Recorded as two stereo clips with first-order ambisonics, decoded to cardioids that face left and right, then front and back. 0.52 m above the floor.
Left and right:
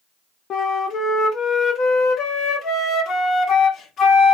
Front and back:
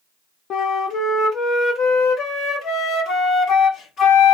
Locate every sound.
0.5 s a flute: 45° left, 0.9 m